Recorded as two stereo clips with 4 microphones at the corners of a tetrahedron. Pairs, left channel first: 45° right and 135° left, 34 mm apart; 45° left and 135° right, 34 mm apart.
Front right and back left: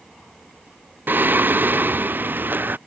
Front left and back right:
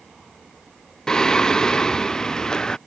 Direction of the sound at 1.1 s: 115° left.